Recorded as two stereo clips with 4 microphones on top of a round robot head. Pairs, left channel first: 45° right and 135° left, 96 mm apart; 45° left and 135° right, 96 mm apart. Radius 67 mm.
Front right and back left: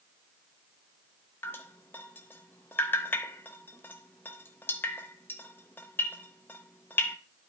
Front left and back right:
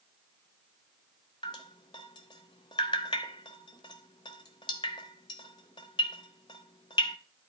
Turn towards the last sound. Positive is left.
turn(degrees=20)